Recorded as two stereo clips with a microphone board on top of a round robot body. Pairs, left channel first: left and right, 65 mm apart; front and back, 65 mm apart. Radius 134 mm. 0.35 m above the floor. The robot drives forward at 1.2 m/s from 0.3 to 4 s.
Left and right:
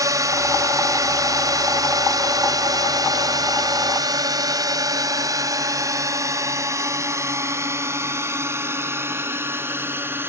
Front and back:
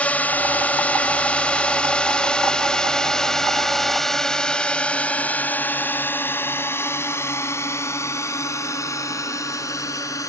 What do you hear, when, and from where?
0.0 s a drone: 70° right; by 10.3 s 35° right